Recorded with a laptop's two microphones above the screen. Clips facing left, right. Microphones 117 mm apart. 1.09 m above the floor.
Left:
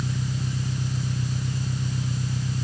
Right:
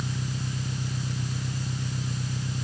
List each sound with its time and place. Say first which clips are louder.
0.0 s an engine running: left 3 dB; 5° right (ahead or behind)